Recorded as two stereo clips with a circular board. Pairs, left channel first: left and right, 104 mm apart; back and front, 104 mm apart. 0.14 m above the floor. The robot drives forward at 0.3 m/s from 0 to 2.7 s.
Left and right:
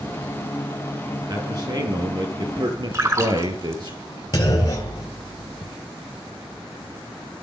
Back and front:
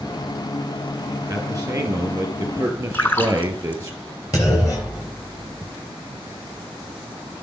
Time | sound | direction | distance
1.3 | a man speaking | 55° right | 3.5 m
2.9 | a splash | 125° right | 1.5 m
4.3 | a clunk | 135° left | 2.5 m